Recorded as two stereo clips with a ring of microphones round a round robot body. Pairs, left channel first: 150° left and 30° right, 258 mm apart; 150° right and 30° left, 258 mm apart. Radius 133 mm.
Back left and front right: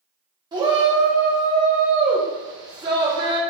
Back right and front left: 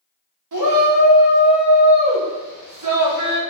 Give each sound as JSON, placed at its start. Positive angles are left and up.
{"t": 0.5, "sound": "a shout", "azimuth_deg": 45, "distance_m": 2.0}